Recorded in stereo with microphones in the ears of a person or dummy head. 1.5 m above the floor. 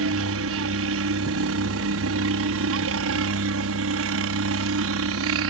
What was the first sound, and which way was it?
A helicopter, 60° right (ahead or behind).